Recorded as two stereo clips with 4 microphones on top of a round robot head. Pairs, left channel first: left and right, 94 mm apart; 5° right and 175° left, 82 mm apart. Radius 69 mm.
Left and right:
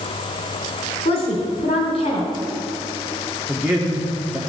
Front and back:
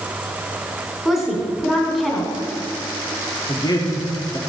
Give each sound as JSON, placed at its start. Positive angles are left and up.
{"t": 1.1, "sound": "a woman speaking", "azimuth_deg": 75, "distance_m": 2.5}
{"t": 3.5, "sound": "a man speaking", "azimuth_deg": -15, "distance_m": 1.4}